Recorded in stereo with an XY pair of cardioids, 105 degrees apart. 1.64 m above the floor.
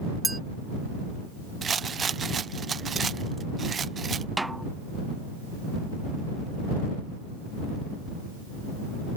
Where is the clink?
10° right.